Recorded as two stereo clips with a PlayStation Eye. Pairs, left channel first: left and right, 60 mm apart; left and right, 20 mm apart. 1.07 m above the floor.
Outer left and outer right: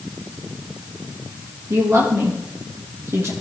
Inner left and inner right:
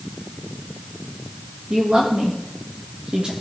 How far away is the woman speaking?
About 1.6 m.